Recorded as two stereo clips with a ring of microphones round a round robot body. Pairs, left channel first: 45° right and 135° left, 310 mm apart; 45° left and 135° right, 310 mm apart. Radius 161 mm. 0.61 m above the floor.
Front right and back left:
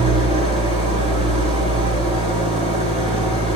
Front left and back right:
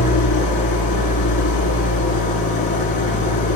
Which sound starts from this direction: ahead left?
An engine running, at 0.0 s.